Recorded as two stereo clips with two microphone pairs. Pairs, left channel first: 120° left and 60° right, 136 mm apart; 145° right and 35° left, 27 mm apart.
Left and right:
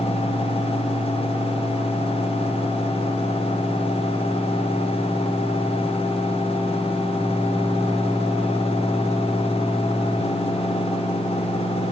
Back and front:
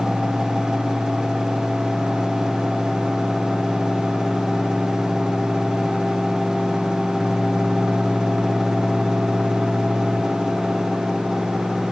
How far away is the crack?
No crack in this recording.